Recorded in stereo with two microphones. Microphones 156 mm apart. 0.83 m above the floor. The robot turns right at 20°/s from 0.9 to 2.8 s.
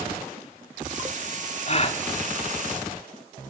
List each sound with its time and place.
1.7 s a gasp: 45° left (ahead or behind), 1.8 m; by 2.0 s 40° left (ahead or behind), 1.8 m